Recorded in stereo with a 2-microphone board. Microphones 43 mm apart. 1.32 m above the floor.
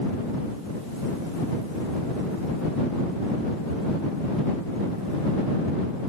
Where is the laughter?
No laughter in this recording.